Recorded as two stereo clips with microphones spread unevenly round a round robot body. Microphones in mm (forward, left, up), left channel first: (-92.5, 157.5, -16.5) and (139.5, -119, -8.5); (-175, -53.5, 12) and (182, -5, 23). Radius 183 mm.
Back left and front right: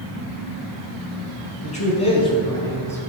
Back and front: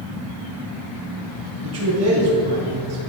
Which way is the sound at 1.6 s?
60° left.